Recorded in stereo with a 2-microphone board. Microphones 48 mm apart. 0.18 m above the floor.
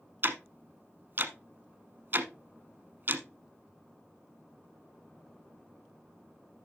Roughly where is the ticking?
Right.